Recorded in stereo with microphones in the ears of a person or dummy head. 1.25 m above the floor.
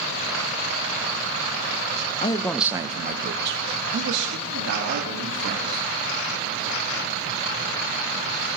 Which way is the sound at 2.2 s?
25° left (ahead or behind).